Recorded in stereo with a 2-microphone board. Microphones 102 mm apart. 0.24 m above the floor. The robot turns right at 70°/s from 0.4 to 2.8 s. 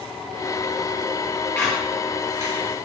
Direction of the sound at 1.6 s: 20° left (ahead or behind).